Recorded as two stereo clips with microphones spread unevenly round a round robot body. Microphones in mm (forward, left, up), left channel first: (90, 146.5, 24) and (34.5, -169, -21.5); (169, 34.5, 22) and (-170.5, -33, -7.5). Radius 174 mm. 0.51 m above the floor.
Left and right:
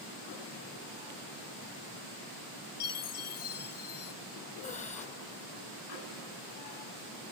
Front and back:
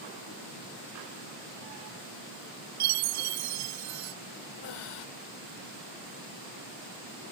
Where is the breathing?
10° left.